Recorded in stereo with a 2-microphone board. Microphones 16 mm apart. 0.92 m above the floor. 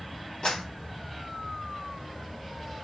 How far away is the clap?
About 3 m.